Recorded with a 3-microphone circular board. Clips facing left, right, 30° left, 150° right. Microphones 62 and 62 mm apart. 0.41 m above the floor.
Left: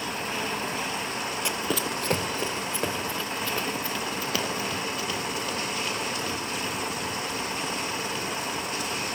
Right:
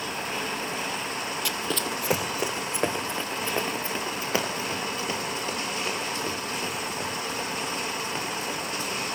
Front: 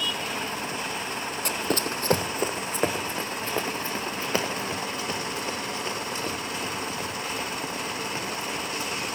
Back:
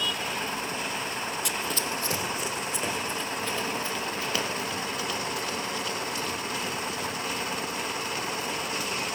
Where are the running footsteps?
40° left, 0.5 m; by 9.2 s 30° right, 7 m.